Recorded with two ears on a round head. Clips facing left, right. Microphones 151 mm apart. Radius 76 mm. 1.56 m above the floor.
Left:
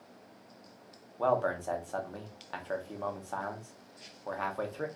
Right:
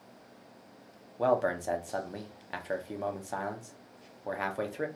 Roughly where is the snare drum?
I don't hear a snare drum.